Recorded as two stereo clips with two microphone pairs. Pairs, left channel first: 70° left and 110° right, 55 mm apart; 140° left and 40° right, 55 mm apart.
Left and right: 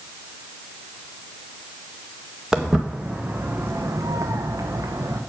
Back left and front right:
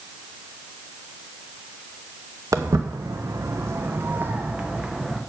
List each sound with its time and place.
2.5 s footsteps: 30° right, 1.2 m; by 5.2 s 125° right, 1.3 m